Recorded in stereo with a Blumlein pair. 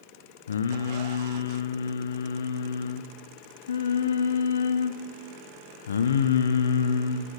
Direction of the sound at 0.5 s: 65° left.